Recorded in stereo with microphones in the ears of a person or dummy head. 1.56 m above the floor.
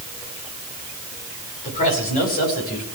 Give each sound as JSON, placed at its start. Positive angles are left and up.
{"t": 1.6, "sound": "a man speaking", "side_deg": 40, "distance_m": 5.5}